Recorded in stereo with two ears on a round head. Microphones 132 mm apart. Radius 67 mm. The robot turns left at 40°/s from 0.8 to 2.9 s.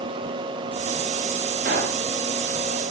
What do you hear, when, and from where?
1.6 s a pop: 70° right (ahead or behind), 7 m; by 2.0 s 60° right (ahead or behind), 7 m